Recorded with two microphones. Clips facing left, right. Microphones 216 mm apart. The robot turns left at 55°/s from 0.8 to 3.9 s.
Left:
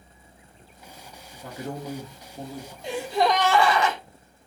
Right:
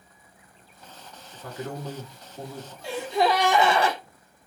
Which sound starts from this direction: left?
A man speaking, at 1.3 s.